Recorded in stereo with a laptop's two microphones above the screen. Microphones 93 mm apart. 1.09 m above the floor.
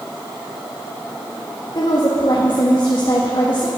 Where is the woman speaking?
55° left (ahead or behind), 1.7 m.